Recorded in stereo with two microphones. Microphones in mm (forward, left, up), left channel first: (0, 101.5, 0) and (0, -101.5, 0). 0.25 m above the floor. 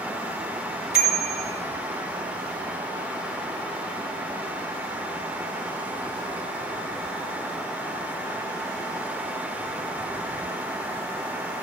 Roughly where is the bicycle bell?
Left.